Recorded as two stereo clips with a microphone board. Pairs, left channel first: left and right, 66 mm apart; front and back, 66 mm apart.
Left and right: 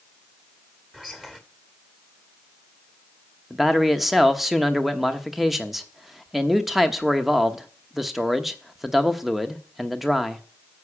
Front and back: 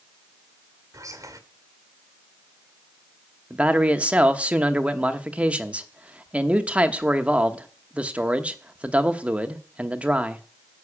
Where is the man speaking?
175° right, 1.0 m.